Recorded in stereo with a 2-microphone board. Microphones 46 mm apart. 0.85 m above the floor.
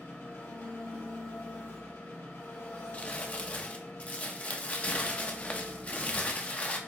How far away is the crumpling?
About 0.6 m.